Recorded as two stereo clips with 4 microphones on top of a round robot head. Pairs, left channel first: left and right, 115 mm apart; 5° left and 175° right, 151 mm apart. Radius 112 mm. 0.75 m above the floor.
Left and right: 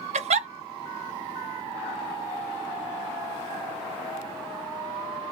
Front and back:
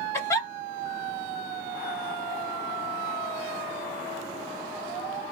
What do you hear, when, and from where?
0.1 s a giggle: 75° right, 0.5 m